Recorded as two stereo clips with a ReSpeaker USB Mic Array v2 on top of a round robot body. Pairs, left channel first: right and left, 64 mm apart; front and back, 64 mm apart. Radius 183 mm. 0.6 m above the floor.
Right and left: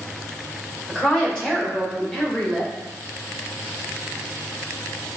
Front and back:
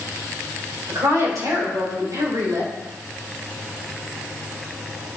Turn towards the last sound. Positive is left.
turn(degrees=-165)